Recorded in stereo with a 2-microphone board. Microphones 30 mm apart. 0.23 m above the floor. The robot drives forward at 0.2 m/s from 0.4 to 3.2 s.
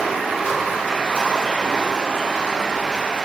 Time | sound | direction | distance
0.0 | running water | 55° right (ahead or behind) | 1.0 m